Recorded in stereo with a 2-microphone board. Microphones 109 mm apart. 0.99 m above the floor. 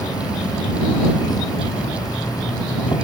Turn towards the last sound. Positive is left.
turn(degrees=40)  # may be behind; listen again after turning